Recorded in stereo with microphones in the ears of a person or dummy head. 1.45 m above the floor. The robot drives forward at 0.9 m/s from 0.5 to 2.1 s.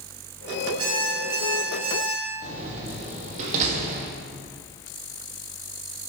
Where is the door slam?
40° right (ahead or behind), 1.5 m.